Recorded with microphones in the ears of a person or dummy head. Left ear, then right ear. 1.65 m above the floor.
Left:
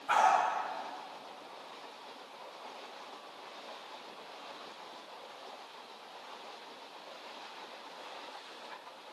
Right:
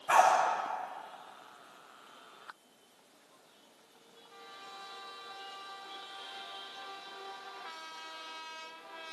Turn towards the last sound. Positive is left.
turn(degrees=10)  # may be behind; listen again after turning